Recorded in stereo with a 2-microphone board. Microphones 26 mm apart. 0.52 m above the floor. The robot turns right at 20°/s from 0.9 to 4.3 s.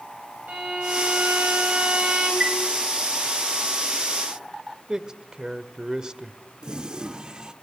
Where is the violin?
70° right (ahead or behind), 3.5 m; by 2.3 s 55° right (ahead or behind), 3.5 m.